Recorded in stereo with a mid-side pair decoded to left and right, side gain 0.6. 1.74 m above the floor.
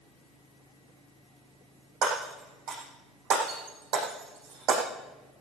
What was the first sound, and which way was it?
Breaking glass, 65° right.